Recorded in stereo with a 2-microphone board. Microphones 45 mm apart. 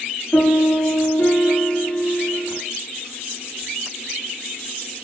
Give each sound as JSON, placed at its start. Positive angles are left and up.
{"t": 0.3, "sound": "a piano", "side_deg": 80, "distance_m": 6.0}